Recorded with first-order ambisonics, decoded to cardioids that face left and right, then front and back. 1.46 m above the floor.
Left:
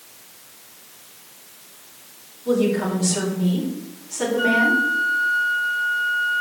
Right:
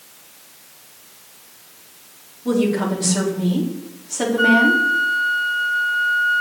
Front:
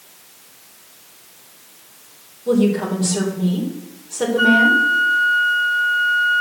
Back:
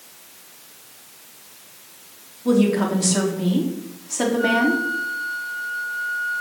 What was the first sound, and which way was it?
A woman speaking, 145° right.